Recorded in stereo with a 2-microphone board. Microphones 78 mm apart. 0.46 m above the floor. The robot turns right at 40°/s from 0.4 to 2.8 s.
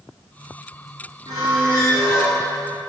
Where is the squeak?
55° right, 2 m; by 2.4 s 10° right, 2 m.